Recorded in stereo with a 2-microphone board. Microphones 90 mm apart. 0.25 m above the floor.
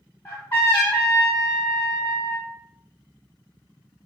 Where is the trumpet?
20° left (ahead or behind), 1.9 m.